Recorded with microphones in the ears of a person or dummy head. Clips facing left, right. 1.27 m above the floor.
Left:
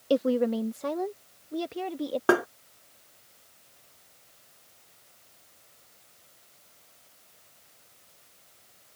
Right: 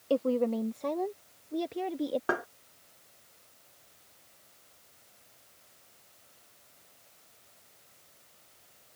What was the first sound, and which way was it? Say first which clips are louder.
A woman speaking: left 3 dB; 20° left (ahead or behind).